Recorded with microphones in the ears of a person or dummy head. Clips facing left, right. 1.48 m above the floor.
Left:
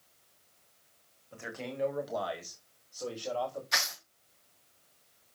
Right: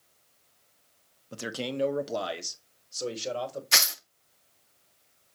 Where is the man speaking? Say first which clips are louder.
Right 7 dB; 60° right (ahead or behind), 1.3 m; by 3.6 s 30° right (ahead or behind), 2.5 m.